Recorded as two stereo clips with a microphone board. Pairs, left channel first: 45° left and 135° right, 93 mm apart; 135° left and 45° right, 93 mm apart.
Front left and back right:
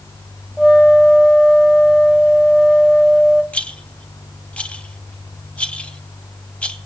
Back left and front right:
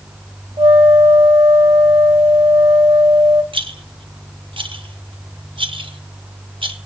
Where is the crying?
I don't hear crying.